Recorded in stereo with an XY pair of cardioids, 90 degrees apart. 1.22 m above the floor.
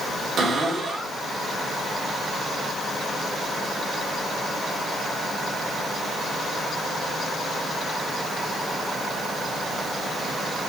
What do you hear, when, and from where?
0.4 s a cupboard door: 60° right, 1.8 m